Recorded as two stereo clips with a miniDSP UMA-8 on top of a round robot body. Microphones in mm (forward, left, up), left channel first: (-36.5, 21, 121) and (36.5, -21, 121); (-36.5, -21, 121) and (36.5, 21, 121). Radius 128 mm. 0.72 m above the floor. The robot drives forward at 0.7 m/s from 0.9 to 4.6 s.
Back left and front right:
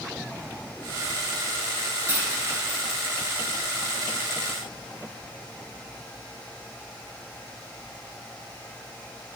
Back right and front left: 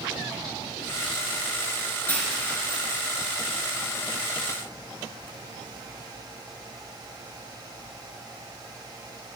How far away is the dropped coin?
About 3 m.